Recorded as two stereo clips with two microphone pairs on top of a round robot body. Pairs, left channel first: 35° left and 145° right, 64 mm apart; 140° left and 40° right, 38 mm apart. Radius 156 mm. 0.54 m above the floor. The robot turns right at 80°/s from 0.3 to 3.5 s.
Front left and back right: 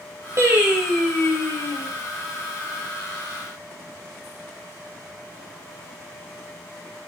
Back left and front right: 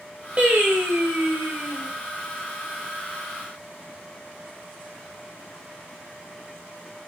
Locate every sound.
0.4 s singing: 95° right, 1.3 m; by 1.9 s 25° left, 1.3 m